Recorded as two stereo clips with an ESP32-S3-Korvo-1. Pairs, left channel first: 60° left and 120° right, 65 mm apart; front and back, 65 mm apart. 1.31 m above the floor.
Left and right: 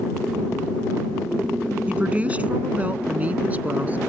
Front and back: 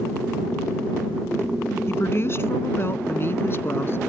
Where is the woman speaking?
50° right; by 4.0 s 55° right.